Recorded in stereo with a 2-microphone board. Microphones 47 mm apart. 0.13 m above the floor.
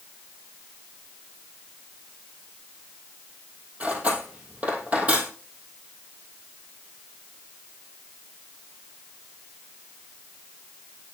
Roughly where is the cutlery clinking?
Right.